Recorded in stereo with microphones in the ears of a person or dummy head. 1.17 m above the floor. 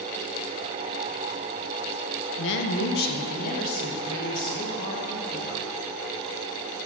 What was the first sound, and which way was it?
A woman speaking, 65° left (ahead or behind).